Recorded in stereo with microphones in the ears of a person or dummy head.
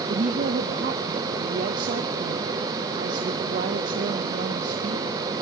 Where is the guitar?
I don't hear a guitar.